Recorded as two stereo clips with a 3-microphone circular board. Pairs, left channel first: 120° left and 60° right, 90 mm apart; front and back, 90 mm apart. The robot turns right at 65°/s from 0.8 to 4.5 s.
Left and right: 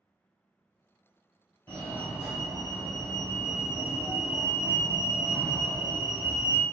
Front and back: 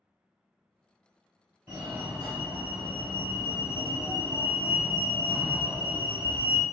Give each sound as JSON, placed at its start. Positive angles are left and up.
{"t": 1.7, "sound": "a fire alarm", "azimuth_deg": 130, "distance_m": 1.9}